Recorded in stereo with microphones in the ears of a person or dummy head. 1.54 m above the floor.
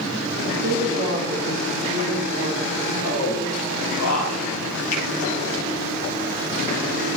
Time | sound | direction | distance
0.5 | a woman speaking | 45° right (ahead or behind) | 1.7 m
3.0 | a man speaking | 85° left | 3.5 m
4.9 | a finger snap | 45° left (ahead or behind) | 4.5 m